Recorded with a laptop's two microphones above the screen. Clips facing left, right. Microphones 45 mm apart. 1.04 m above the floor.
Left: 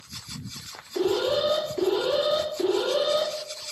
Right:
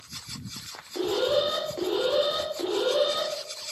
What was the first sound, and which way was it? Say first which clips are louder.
An alarm: left 1 dB; 15° right (ahead or behind).